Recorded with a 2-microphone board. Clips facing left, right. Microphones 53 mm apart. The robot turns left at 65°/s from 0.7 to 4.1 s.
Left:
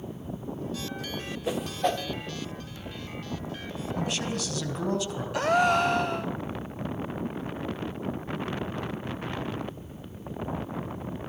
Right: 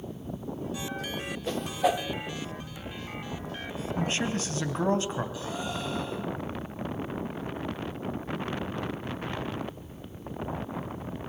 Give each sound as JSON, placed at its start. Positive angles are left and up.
{"t": 1.5, "sound": "a whoosh", "side_deg": 15, "distance_m": 1.0}
{"t": 4.0, "sound": "a man speaking", "side_deg": -25, "distance_m": 4.0}
{"t": 5.3, "sound": "a gasp", "side_deg": 65, "distance_m": 0.9}